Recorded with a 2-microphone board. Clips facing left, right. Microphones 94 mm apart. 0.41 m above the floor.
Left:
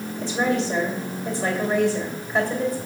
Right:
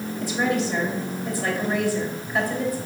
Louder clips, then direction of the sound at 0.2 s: Left 1 dB; 25° left (ahead or behind).